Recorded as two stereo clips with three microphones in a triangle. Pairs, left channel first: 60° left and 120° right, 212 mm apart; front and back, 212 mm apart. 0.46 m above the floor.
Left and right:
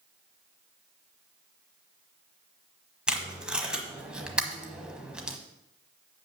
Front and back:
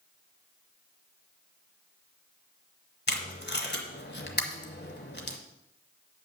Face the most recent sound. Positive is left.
turn(degrees=-35)